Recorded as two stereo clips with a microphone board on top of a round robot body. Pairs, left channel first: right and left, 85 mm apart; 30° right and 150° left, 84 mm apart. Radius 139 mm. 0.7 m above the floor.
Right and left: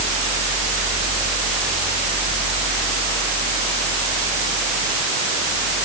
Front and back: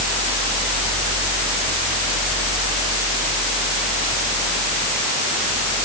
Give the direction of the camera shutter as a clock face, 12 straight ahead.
No camera shutter in this recording.